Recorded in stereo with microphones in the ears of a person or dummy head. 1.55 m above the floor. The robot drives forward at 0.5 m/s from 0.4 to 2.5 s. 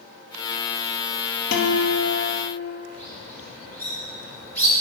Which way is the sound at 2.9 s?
5° left (ahead or behind).